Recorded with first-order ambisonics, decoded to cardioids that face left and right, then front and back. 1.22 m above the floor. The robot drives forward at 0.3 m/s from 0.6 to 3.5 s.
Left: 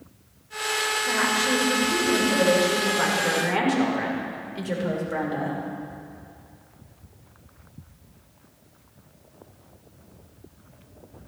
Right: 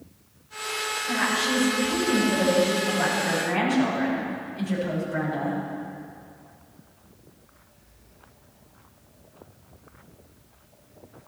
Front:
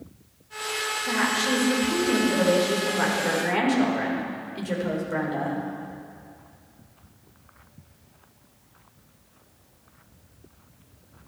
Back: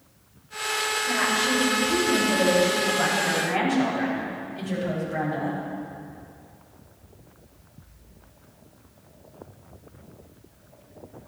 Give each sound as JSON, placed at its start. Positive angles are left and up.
{"t": 1.1, "sound": "a woman speaking", "azimuth_deg": 40, "distance_m": 5.0}